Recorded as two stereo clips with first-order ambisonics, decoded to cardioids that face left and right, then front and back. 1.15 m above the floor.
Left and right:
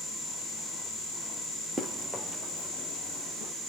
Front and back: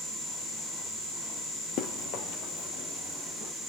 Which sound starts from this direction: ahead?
Running footsteps, at 1.8 s.